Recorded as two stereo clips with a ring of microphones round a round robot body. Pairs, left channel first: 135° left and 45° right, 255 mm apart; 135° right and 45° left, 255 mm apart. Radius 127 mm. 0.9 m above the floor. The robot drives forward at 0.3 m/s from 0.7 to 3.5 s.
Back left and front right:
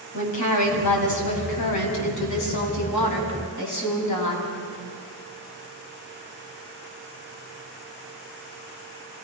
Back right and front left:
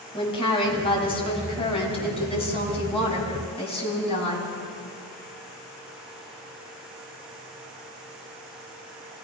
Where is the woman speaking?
155° left, 6 m.